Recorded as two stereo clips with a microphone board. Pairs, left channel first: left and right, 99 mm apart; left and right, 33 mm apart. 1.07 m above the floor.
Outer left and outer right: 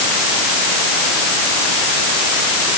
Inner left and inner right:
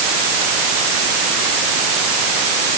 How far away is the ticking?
No ticking in this recording.